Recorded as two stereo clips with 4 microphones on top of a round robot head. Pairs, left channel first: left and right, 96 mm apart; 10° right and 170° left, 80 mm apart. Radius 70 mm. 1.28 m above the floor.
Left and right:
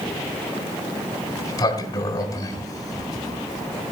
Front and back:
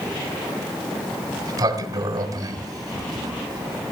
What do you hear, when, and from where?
1.4 s a sliding door: 135° left, 1.6 m